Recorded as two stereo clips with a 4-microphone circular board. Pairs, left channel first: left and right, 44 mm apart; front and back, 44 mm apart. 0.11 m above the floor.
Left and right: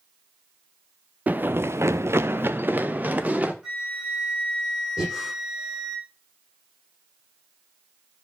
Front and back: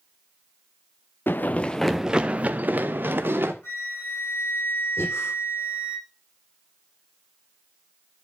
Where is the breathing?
20° right, 6.5 m.